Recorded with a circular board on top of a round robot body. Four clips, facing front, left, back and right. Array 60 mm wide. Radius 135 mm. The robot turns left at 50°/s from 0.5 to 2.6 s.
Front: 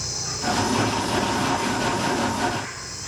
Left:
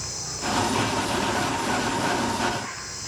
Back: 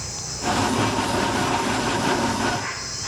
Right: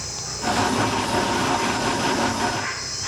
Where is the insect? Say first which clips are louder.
Right 4 dB, even; straight ahead, 3.5 m; by 3.1 s 105° right, 3.5 m.